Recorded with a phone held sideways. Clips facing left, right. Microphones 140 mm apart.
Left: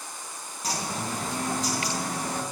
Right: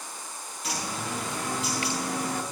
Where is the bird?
40° left (ahead or behind), 4 m.